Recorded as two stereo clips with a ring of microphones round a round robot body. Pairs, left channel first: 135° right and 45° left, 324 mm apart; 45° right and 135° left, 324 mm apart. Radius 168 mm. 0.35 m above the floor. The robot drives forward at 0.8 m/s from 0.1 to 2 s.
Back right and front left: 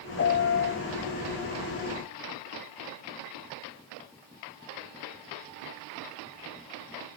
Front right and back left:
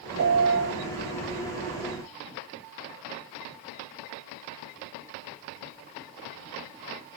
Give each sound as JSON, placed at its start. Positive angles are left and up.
{"t": 0.2, "sound": "a piano", "azimuth_deg": 175, "distance_m": 2.0}